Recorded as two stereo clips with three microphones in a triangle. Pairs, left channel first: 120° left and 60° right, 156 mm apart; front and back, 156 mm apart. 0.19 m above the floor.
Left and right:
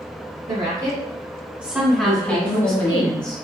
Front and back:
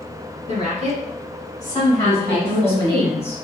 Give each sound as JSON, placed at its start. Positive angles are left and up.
{"t": 0.5, "sound": "a woman speaking", "azimuth_deg": -40, "distance_m": 1.6}
{"t": 2.0, "sound": "a woman speaking", "azimuth_deg": 45, "distance_m": 1.3}